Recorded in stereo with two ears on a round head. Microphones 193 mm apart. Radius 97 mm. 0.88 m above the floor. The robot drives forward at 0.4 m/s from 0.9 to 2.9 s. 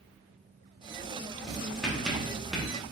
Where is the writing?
Centre (ahead or behind), 1.4 m.